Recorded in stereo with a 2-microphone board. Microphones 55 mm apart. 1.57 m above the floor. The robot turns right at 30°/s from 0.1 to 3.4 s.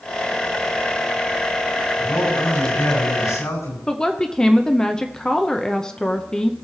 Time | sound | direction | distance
2.0 | a man speaking | 45° left | 6.5 m
3.9 | a woman speaking | 15° left (ahead or behind) | 0.7 m